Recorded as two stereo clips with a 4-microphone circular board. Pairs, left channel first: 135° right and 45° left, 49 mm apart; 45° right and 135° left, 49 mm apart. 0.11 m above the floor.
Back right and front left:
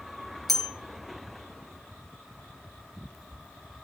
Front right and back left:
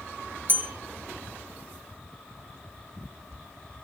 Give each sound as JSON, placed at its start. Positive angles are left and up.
{"t": 0.5, "sound": "a bell", "azimuth_deg": 140, "distance_m": 1.4}